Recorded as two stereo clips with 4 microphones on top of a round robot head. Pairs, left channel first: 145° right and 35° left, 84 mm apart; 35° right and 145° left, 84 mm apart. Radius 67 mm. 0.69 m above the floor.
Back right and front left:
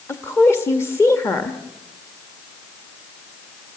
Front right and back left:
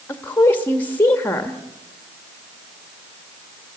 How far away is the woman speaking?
About 1.5 m.